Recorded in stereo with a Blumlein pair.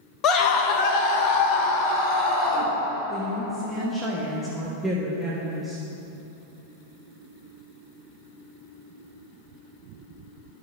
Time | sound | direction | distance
0.2 | a scream | 30° left | 0.8 m
3.1 | a woman speaking | 5° left | 1.3 m